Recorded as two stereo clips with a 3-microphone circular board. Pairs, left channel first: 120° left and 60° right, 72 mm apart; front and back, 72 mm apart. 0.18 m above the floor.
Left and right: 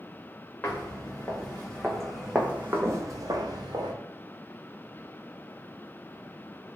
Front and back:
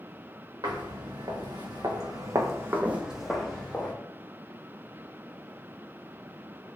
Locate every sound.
0.6 s footsteps: 175° right, 1.5 m; by 3.9 s 70° right, 1.0 m